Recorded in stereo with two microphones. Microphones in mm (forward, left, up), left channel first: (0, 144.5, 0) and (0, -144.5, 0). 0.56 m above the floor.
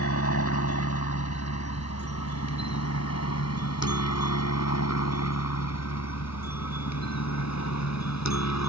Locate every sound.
0.0 s a helicopter: 55° left (ahead or behind); by 8.7 s 70° left (ahead or behind)